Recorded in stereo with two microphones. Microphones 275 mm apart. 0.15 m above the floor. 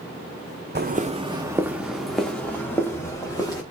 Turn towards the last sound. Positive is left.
turn(degrees=15)  # may be behind; listen again after turning